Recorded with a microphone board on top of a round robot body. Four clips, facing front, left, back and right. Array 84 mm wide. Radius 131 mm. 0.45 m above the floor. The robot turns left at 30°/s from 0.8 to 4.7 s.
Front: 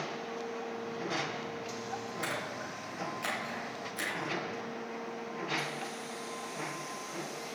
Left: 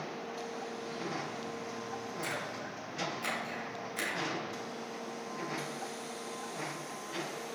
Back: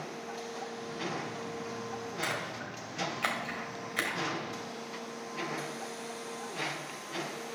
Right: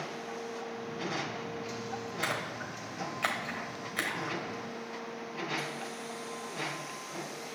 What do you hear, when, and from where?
2.2 s a splash: 110° right, 2.5 m; by 4.4 s 175° right, 2.5 m